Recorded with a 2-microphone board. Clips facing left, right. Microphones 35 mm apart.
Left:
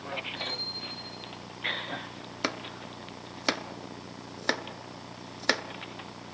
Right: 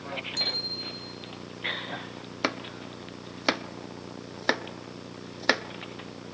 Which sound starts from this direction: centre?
Chopping, at 2.4 s.